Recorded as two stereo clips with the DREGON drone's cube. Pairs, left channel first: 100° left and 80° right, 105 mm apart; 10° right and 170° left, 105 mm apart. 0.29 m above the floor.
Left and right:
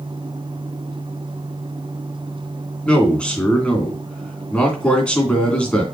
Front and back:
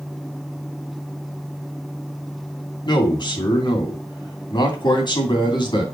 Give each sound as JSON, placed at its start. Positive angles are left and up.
{"t": 2.9, "sound": "a man speaking", "azimuth_deg": 20, "distance_m": 3.0}